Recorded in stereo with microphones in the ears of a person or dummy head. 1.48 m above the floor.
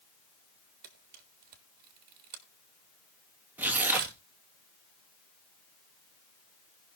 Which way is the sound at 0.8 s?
50° right (ahead or behind).